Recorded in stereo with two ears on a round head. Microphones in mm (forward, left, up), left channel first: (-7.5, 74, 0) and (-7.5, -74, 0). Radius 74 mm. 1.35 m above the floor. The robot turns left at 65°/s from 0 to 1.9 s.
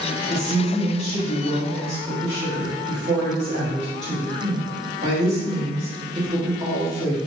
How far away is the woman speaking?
About 1.9 m.